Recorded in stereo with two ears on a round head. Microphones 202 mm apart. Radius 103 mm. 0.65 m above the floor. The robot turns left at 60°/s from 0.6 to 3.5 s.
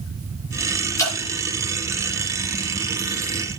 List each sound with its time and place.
1.0 s dripping: 15° left (ahead or behind), 6 m; by 1.1 s 25° left (ahead or behind), 6 m